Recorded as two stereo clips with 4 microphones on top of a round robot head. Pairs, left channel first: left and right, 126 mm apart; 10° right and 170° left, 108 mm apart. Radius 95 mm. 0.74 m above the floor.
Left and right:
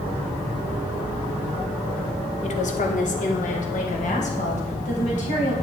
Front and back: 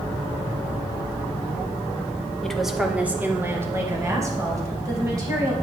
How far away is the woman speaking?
About 1.6 m.